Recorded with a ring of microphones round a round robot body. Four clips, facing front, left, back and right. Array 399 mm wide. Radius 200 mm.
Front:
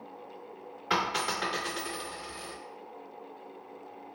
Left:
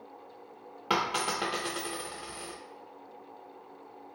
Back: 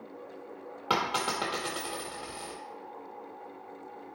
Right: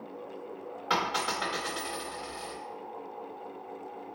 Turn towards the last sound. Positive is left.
turn(degrees=155)